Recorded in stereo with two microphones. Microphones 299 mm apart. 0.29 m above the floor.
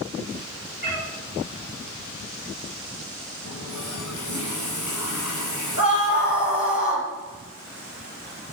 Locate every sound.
0.8 s a cat meowing: 25° left (ahead or behind), 7.5 m
3.5 s a running tap: 85° left, 7.5 m
5.8 s a scream: 50° left (ahead or behind), 6.5 m